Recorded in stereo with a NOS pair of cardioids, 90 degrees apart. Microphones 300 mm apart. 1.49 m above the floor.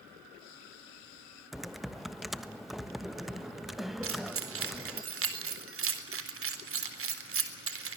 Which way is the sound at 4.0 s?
45° right.